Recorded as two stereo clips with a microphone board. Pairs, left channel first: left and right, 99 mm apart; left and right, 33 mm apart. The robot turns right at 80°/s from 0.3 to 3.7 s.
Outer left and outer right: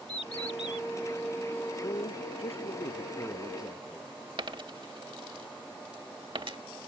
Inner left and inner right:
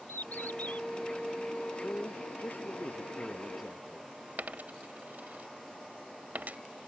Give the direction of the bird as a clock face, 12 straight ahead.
9 o'clock.